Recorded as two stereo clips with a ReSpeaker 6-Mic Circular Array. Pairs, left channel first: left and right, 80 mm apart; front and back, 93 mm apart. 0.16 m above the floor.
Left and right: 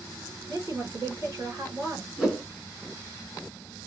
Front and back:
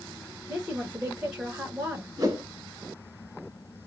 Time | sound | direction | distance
0.5 | a woman speaking | 95° right | 2.0 m
2.2 | a whoosh | 170° right | 1.4 m